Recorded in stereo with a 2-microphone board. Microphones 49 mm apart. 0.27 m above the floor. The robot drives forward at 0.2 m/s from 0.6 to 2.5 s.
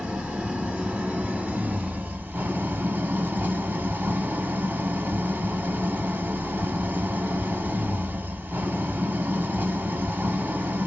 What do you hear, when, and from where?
0.0 s an engine running: 25° right (ahead or behind), 0.9 m; by 10.9 s 40° right (ahead or behind), 0.6 m